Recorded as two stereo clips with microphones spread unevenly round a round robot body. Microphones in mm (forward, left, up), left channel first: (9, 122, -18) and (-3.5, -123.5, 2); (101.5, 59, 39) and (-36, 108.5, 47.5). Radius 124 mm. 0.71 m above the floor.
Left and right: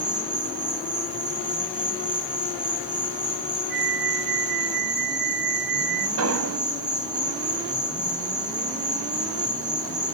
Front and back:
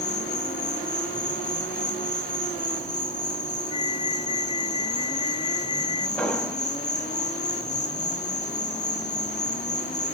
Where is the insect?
20° right, 3 m.